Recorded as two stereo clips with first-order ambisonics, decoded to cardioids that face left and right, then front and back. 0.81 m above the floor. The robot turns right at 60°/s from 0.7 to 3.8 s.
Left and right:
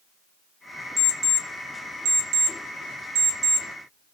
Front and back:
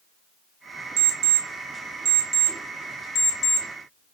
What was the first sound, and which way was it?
An alarm clock, straight behind.